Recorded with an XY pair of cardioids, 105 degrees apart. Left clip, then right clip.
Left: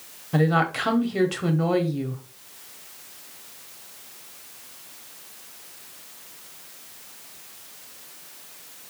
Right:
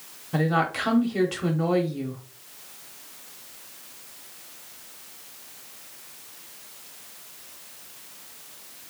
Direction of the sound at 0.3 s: 15° left.